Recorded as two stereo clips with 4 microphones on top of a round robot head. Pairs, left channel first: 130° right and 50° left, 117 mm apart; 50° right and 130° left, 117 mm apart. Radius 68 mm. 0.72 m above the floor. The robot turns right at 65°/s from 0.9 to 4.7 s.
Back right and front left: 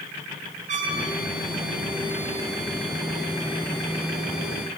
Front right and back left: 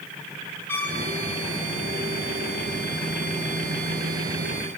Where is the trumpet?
25° left, 8.5 m; by 1.0 s 30° left, 8.5 m.